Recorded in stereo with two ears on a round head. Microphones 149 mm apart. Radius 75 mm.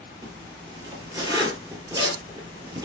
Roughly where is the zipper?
Right.